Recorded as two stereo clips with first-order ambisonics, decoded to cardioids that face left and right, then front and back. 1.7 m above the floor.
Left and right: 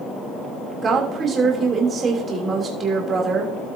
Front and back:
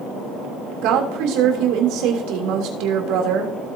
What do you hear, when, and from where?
0.8 s a woman speaking: 155° right, 3 m